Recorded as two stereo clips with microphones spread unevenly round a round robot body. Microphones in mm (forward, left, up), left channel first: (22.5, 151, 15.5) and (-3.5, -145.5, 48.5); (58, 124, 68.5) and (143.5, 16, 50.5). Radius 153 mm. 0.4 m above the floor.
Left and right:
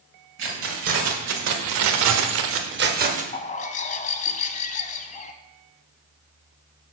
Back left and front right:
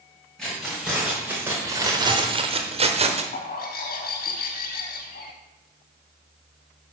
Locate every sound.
0.4 s keys jangling: 140° right, 1.8 m; by 3.2 s 30° right, 1.2 m
3.3 s a bird: 150° left, 0.6 m